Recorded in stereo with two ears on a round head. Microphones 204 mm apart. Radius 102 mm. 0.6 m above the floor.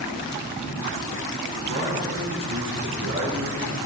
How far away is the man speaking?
About 4 m.